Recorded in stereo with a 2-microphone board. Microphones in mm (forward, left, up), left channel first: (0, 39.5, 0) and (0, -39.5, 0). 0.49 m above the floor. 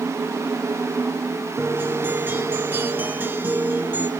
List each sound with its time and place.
1.6 s a guitar: 25° right (ahead or behind), 1.7 m